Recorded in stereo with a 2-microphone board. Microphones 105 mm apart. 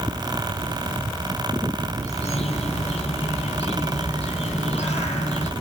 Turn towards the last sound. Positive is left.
turn(degrees=80)